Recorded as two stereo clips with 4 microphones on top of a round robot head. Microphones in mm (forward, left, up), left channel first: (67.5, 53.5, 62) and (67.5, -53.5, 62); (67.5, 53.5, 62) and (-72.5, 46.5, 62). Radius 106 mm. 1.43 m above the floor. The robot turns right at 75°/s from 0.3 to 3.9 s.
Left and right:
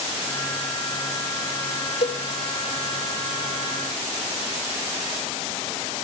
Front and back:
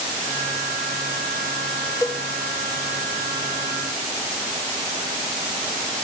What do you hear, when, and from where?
2.0 s a cowbell: 70° left, 1.3 m; by 2.2 s 85° left, 1.3 m